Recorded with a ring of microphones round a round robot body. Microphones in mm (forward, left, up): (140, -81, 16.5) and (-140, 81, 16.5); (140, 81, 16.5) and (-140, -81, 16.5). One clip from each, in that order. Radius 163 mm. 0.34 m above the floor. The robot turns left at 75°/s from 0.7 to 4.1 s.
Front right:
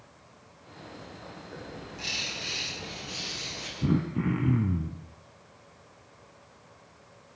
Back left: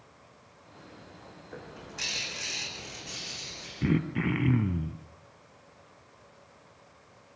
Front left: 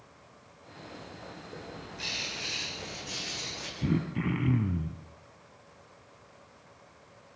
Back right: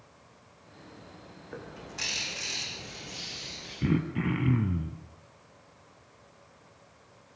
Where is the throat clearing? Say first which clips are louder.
Back left 1 dB, back right 3 dB; 145° left, 1.7 m; by 5.0 s 120° left, 1.7 m.